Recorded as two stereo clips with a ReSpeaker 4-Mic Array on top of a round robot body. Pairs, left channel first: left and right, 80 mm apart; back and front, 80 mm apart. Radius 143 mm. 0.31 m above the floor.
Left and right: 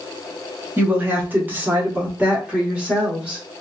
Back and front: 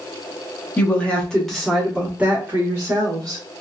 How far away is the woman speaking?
About 1.4 m.